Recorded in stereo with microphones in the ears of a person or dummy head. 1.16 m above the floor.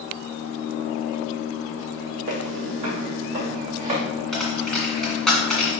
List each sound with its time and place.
2.3 s footsteps: 45° right (ahead or behind), 2.5 m; by 4.0 s 25° right (ahead or behind), 3.5 m
4.3 s a dropped coin: 5° left (ahead or behind), 2 m